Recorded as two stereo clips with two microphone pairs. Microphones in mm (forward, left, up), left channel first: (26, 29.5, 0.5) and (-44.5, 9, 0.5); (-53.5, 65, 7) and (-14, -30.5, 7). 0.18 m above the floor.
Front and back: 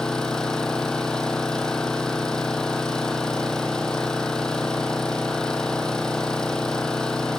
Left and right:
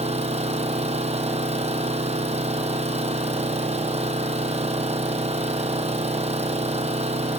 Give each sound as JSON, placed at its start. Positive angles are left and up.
{"t": 0.0, "sound": "an engine running", "azimuth_deg": -65, "distance_m": 2.5}